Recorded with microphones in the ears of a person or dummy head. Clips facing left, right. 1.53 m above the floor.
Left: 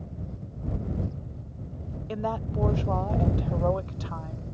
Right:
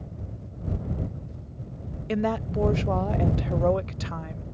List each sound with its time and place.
2.1 s a woman speaking: 30° right (ahead or behind)